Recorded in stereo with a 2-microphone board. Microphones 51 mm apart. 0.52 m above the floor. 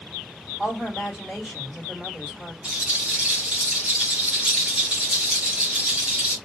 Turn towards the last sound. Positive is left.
turn(degrees=-25)  # may be behind; listen again after turning